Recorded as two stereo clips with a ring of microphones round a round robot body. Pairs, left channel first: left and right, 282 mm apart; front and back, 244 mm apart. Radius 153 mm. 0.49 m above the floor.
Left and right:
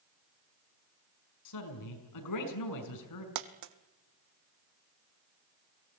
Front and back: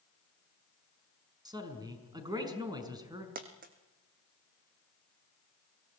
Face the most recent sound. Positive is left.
turn(degrees=-120)